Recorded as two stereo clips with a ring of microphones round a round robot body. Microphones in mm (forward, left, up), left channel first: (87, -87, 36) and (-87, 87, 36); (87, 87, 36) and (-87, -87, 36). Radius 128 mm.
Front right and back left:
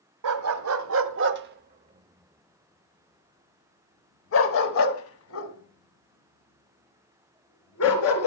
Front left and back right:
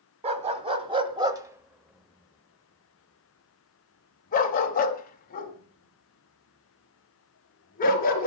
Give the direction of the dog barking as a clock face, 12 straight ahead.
7 o'clock.